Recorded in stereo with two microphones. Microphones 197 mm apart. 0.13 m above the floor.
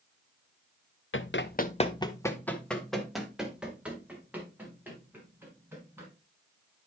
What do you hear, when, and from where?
1.1 s running footsteps: 85° left, 0.9 m; by 6.1 s 10° right (ahead or behind), 7 m